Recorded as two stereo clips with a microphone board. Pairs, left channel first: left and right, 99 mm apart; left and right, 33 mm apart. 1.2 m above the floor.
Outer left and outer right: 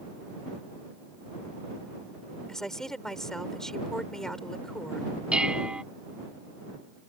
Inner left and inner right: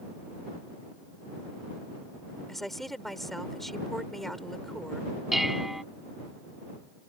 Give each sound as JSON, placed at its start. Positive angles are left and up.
{"t": 2.5, "sound": "a woman speaking", "side_deg": 5}
{"t": 5.3, "sound": "dishes clattering", "side_deg": -10}